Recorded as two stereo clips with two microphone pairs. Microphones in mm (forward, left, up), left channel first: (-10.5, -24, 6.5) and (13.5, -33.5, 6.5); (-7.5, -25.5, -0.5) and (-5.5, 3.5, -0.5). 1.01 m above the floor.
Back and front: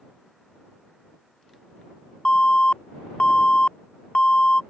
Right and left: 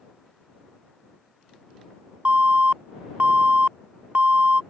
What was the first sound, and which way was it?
An alarm, 120° left.